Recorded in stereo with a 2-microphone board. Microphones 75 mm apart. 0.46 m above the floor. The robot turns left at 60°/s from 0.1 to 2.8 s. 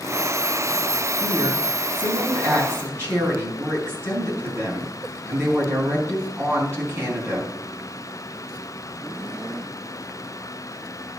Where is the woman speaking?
50° right, 5.5 m; by 7.5 s 150° right, 5.5 m.